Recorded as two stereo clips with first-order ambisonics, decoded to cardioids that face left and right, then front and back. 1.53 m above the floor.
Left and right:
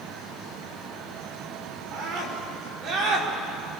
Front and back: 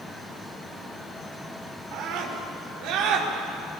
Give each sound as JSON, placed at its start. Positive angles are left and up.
{"t": 1.9, "sound": "a scream", "azimuth_deg": -140, "distance_m": 6.0}